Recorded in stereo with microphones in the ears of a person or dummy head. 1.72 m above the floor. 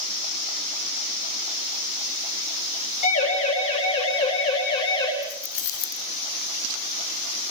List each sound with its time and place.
3.0 s a siren: 45° left (ahead or behind), 8 m; by 5.1 s 25° left (ahead or behind), 6.5 m
5.2 s keys jangling: 55° left (ahead or behind), 1.6 m